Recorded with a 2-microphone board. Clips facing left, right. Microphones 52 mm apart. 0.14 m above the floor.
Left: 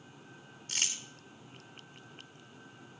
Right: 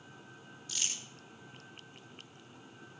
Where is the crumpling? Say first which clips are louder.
Left 3 dB; 45° left (ahead or behind), 3 m.